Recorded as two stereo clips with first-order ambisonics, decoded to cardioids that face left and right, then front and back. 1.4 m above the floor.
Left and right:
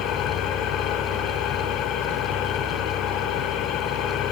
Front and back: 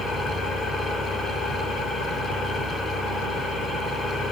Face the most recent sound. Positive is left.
turn(degrees=65)